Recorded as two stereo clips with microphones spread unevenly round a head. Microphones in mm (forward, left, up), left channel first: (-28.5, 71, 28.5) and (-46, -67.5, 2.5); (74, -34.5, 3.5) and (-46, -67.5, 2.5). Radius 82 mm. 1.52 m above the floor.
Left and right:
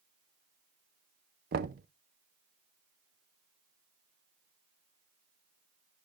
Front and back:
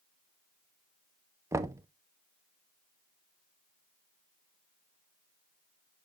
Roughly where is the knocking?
Right.